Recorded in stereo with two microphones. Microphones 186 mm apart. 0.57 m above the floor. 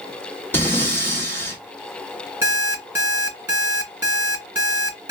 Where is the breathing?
10° left (ahead or behind), 2.0 m.